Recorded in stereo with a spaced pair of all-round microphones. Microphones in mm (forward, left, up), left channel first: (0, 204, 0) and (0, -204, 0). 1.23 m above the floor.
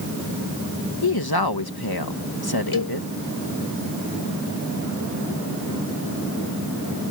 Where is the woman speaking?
65° left (ahead or behind).